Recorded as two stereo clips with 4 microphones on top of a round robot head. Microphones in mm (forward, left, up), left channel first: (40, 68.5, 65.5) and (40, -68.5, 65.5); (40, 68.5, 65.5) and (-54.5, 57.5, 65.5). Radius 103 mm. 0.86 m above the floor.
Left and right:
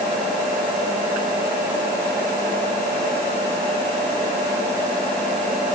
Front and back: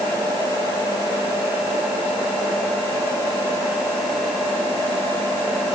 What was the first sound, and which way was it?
Only background noise.